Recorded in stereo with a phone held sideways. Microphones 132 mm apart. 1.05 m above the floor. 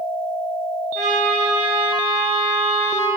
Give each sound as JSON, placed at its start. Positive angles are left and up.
{"t": 0.9, "sound": "a trumpet", "side_deg": -60, "distance_m": 1.1}